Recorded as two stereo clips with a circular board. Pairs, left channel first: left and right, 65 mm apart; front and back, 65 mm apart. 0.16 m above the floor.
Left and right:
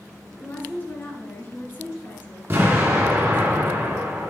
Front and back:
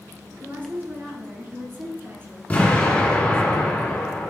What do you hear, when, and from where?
0.3 s a woman speaking: 135° left, 2.0 m
2.5 s an explosion: 55° right, 2.0 m